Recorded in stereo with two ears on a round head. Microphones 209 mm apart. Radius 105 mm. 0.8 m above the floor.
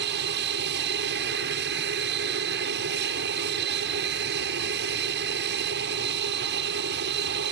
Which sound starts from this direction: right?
An aircraft, at 0.0 s.